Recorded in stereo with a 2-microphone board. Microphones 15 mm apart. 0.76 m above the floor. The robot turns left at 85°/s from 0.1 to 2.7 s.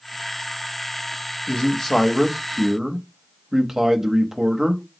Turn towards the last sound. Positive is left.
turn(degrees=-35)